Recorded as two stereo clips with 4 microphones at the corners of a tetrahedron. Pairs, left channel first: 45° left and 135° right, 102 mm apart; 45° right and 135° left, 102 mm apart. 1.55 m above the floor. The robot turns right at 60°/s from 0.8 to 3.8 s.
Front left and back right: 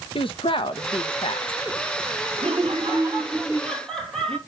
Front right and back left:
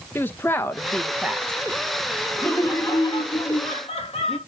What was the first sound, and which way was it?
A woman speaking, 25° left.